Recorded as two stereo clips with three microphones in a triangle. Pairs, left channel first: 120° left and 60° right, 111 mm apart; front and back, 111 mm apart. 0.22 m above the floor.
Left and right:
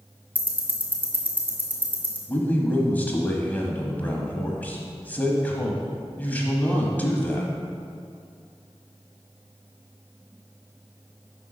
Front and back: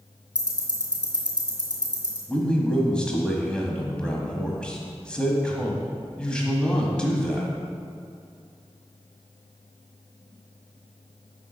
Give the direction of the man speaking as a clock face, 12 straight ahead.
10 o'clock.